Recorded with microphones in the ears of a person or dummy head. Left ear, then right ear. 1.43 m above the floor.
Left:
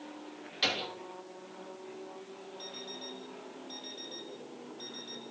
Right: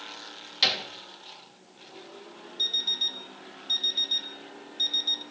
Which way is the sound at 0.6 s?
20° right (ahead or behind).